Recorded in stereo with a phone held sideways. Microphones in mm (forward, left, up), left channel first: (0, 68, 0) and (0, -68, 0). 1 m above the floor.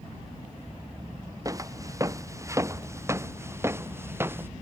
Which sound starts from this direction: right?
Footsteps, at 1.4 s.